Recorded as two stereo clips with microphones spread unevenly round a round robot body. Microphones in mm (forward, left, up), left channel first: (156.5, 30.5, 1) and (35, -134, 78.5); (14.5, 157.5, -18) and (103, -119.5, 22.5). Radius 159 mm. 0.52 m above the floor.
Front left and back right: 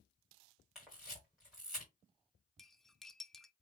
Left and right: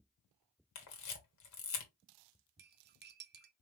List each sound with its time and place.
0.8 s a camera shutter: 140° left, 1.4 m
2.6 s cutlery clinking: 15° right, 0.6 m